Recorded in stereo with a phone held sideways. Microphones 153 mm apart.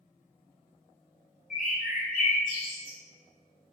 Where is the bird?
60° left (ahead or behind), 0.8 m.